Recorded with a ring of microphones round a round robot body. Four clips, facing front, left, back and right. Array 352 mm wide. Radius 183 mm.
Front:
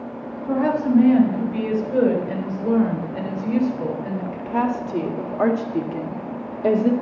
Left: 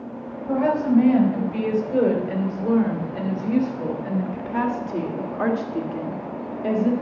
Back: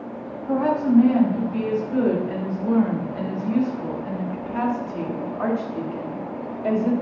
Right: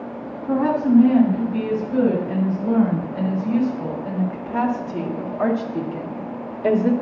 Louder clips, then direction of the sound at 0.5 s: Right 2 dB, front 1 dB; 55° left.